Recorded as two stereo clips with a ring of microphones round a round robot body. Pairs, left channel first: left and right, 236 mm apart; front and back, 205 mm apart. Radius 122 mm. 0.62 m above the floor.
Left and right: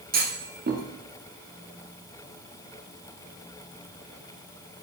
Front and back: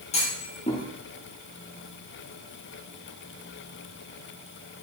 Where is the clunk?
50° right, 1.1 m.